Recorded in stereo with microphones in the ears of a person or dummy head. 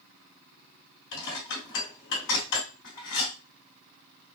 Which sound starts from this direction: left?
Dishes clattering, at 1.1 s.